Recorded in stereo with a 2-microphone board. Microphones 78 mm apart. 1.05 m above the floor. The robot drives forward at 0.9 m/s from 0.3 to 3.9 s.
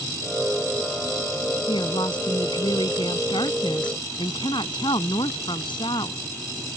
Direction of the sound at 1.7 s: 80° left.